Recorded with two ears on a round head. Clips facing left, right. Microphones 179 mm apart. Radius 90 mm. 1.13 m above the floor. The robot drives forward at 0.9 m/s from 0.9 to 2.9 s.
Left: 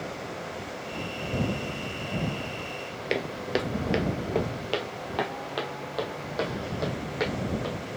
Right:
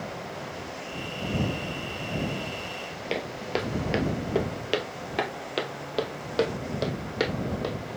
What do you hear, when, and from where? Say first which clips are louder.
3.1 s footsteps: left 2 dB; 20° left (ahead or behind), 1.2 m; by 7.7 s 45° right (ahead or behind), 3 m